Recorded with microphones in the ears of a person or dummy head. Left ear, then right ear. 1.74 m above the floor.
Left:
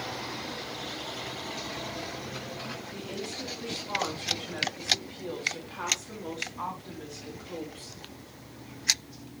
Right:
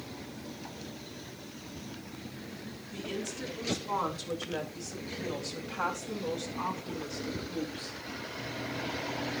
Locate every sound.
2.9 s a woman speaking: 30° right (ahead or behind), 4.5 m; by 8.0 s 15° left (ahead or behind), 2 m